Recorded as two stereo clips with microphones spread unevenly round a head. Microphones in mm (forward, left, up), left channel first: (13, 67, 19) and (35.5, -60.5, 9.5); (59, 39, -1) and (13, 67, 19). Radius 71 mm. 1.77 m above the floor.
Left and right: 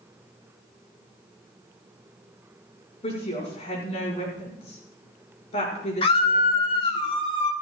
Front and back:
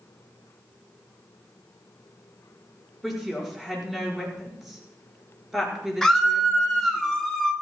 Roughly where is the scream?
Ahead left.